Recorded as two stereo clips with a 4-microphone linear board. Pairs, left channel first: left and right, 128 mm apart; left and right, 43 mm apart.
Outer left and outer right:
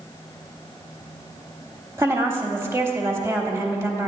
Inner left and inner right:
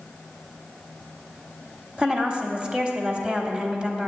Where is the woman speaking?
20° right (ahead or behind), 1.0 m.